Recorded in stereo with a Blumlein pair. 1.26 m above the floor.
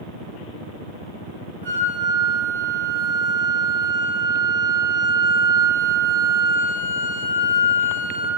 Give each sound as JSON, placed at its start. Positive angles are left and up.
{"t": 1.6, "sound": "a flute", "azimuth_deg": -70, "distance_m": 1.7}